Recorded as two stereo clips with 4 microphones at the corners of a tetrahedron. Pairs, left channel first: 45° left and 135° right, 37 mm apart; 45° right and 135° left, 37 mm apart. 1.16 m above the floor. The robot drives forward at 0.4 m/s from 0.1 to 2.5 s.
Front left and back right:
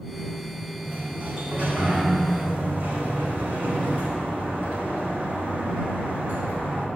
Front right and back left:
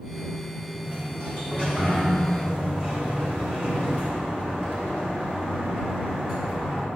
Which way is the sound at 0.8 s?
Straight behind.